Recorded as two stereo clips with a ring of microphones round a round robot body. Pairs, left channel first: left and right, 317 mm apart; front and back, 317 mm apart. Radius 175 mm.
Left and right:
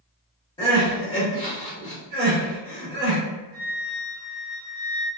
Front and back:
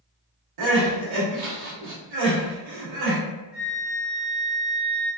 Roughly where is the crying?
Behind.